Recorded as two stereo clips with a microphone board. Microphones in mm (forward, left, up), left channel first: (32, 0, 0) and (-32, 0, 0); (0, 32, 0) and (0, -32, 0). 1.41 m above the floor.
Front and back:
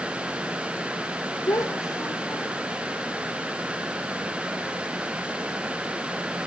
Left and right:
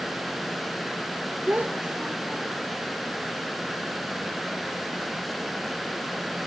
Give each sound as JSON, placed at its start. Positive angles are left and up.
{"t": 1.5, "sound": "a child speaking", "azimuth_deg": -25, "distance_m": 2.0}